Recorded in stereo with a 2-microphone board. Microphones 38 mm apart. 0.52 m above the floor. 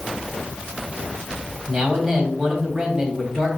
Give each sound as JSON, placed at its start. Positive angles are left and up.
{"t": 1.7, "sound": "a man speaking", "side_deg": -10, "distance_m": 3.5}